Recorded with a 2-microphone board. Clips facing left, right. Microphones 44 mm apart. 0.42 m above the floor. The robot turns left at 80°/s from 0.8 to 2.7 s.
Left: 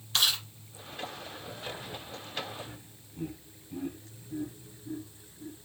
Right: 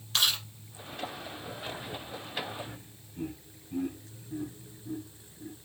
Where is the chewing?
Centre (ahead or behind), 4 m.